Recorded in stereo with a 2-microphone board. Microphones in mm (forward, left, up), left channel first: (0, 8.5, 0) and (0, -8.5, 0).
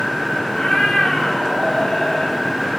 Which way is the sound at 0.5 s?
90° left.